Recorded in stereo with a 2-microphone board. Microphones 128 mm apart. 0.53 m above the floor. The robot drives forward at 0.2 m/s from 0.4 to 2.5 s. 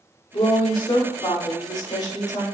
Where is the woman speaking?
35° left (ahead or behind), 0.9 m; by 2.5 s 30° left (ahead or behind), 1.2 m.